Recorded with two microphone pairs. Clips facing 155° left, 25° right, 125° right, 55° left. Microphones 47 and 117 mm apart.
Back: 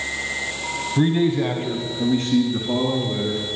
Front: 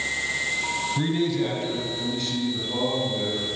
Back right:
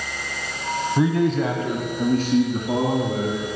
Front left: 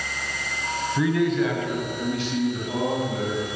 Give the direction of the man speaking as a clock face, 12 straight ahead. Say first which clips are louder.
Back 7 dB, back right 1 dB; 5 o'clock.